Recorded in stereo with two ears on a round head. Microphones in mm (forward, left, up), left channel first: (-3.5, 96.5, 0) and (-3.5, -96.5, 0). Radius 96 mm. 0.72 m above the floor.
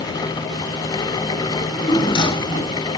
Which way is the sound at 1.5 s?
25° left (ahead or behind).